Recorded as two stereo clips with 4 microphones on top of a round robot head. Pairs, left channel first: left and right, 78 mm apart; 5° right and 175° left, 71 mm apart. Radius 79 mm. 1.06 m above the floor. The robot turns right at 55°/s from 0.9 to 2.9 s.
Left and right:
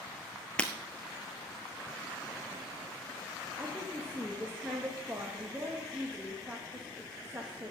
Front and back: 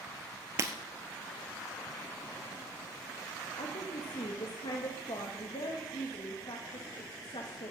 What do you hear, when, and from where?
0.6 s breaking glass: 155° left, 1.2 m
3.6 s a woman speaking: 15° right, 1.3 m